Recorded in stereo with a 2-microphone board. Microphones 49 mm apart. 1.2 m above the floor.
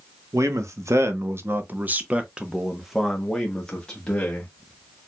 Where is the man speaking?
80° right, 1.1 m; by 4.5 s 20° left (ahead or behind), 1.7 m.